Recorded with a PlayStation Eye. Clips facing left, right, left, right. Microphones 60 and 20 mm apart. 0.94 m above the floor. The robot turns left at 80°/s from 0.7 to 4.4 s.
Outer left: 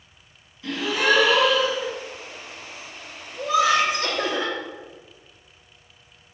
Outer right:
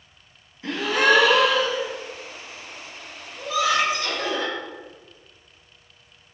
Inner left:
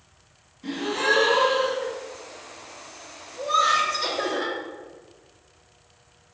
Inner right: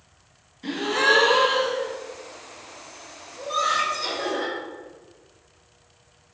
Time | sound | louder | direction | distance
0.6 | a gasp | outer right 2 dB, inner right 3 dB | 45° right | 0.7 m
3.4 | laughter | outer left 3 dB, inner left 3 dB | 95° left | 1.9 m